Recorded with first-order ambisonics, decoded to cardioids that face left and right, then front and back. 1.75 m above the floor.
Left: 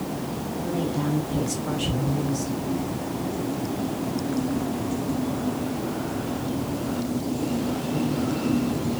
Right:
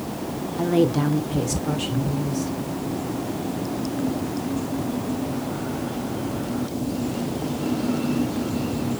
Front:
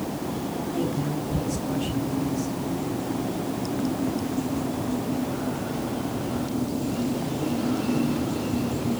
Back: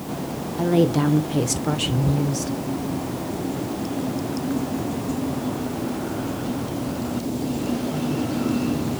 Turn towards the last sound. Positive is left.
turn(degrees=175)